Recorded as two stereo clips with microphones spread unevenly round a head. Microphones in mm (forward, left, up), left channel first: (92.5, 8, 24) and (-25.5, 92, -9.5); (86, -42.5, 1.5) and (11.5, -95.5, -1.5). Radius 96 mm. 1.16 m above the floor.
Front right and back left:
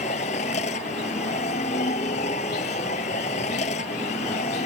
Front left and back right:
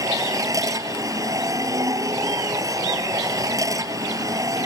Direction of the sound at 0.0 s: 90° right.